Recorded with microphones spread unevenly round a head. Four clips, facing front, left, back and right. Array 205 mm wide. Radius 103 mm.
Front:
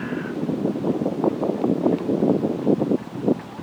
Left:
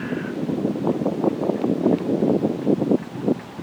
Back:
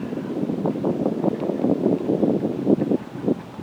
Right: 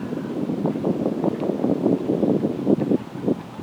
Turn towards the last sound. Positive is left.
No sound to turn to.